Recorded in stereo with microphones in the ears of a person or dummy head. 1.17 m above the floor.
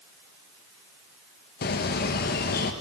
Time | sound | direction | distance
1.6 | a bird | 55° left (ahead or behind) | 1.5 m